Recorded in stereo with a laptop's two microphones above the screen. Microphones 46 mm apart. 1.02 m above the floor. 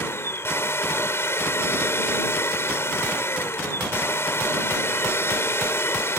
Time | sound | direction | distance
0.0 | a machine running | 85° left | ?